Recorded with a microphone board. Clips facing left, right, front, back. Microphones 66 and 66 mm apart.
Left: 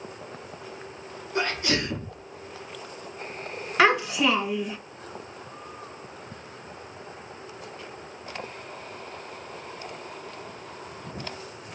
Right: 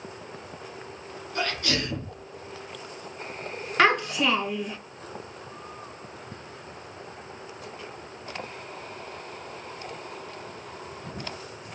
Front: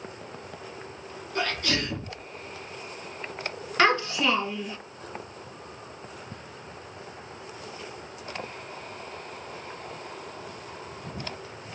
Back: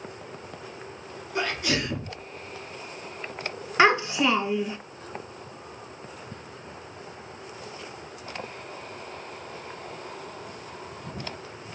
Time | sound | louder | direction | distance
1.4 | a sneeze | left 2 dB, back 1 dB | 125° left | 1.1 m
3.8 | a child speaking | left 1 dB, back 2 dB | 165° left | 0.7 m